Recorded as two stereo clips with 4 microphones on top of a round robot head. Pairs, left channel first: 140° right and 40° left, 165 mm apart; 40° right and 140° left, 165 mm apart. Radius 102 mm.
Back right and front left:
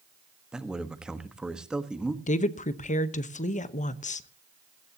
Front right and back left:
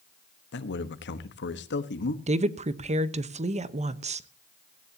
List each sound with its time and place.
0.5 s a man speaking: 45° right, 1.3 m
2.3 s a woman speaking: 175° right, 1.1 m